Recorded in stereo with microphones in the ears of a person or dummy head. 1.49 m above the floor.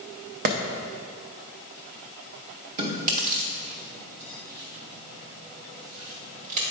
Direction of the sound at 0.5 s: 50° right (ahead or behind).